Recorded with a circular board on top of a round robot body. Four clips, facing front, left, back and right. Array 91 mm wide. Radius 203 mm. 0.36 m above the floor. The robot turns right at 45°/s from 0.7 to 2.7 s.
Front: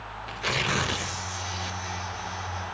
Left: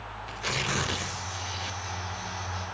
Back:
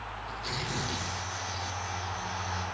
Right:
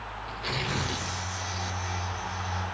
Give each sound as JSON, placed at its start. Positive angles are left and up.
{"t": 0.3, "sound": "tearing paper", "azimuth_deg": 15, "distance_m": 1.6}